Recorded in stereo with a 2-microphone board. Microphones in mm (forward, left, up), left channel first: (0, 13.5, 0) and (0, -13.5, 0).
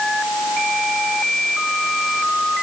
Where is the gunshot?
I don't hear a gunshot.